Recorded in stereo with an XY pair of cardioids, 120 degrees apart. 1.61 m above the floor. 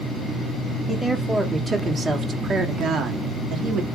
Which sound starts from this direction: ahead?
A woman speaking, at 0.9 s.